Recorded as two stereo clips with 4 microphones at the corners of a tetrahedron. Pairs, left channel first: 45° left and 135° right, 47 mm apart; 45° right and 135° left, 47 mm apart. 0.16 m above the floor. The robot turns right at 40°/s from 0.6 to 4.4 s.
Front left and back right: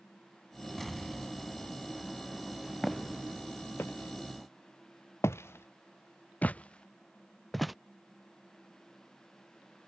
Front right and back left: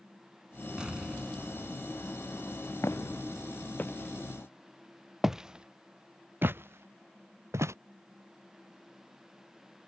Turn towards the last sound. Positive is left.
turn(degrees=135)